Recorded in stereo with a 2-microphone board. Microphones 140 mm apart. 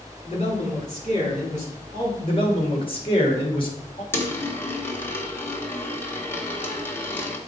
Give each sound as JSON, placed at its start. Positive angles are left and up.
{"t": 0.2, "sound": "a man speaking", "side_deg": 50, "distance_m": 3.5}
{"t": 2.2, "sound": "a man speaking", "side_deg": 40, "distance_m": 1.9}
{"t": 4.1, "sound": "a dropped coin", "side_deg": 15, "distance_m": 1.1}